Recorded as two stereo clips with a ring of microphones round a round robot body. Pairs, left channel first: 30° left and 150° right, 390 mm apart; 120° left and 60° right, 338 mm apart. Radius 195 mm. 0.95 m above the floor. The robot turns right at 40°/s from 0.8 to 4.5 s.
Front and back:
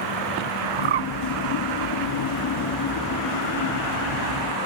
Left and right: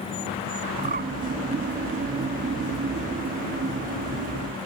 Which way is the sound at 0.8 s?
135° right.